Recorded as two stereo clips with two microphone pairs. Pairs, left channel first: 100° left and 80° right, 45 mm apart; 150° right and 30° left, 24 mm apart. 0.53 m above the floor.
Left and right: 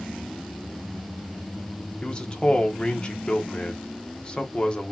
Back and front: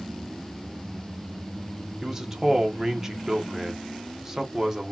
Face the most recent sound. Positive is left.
turn(degrees=70)